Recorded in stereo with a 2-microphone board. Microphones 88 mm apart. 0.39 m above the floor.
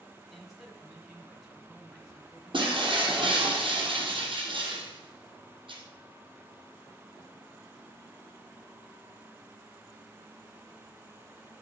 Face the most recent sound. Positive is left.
turn(degrees=-70)  # may be behind; listen again after turning